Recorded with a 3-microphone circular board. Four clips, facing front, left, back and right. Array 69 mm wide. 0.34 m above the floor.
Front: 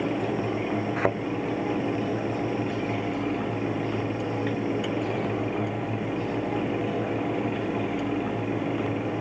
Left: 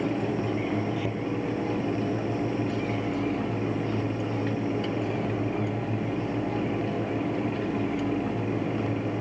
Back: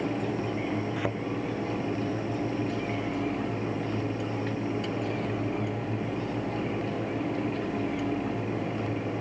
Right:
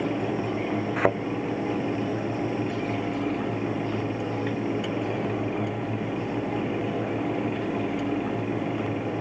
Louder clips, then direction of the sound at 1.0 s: Right 7 dB, front 6 dB; 70° right.